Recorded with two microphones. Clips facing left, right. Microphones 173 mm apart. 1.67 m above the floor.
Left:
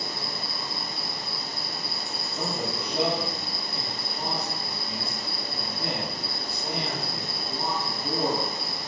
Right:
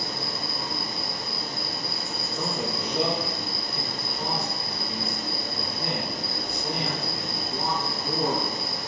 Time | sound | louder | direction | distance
0.0 | an insect | right 2 dB | 50° right (ahead or behind) | 1.2 m
2.3 | a man speaking | right 1 dB | 50° left (ahead or behind) | 1.8 m